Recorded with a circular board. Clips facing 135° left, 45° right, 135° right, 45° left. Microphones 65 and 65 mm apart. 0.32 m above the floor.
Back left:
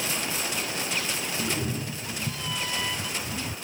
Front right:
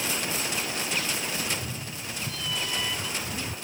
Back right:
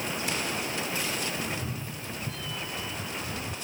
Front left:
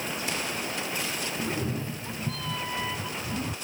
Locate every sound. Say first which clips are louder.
1.4 s a cat meowing: back left 4 dB, front left 4 dB; 90° left; by 3.5 s 50° left